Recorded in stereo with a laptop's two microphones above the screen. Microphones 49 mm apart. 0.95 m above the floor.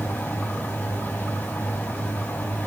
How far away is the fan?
About 0.8 m.